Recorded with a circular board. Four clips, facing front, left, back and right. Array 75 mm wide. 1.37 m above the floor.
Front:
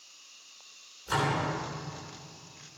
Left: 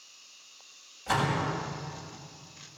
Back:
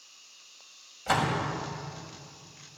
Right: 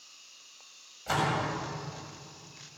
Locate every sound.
1.1 s a door slam: 175° right, 6.5 m